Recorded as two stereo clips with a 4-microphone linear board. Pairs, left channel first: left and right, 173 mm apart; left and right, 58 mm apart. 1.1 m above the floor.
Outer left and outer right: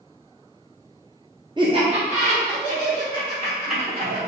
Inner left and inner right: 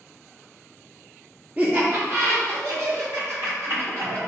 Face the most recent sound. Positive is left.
turn(degrees=-55)  # may be behind; listen again after turning